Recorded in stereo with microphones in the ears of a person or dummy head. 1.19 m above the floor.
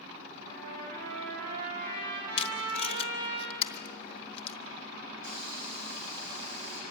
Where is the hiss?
70° right (ahead or behind), 9.5 m.